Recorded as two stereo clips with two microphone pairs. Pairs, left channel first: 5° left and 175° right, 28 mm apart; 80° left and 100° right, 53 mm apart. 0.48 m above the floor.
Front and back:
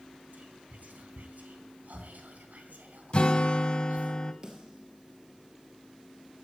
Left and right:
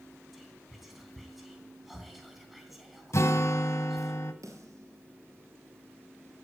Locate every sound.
0.3 s whispering: 175° left, 3 m
3.1 s a guitar: 50° left, 1.2 m
4.4 s a snare drum: 115° right, 3 m